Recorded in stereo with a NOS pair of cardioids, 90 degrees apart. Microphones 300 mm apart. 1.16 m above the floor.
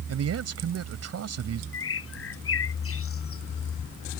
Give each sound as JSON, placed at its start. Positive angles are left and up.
{"t": 0.1, "sound": "a man speaking", "azimuth_deg": -55}
{"t": 1.7, "sound": "a bird", "azimuth_deg": 45}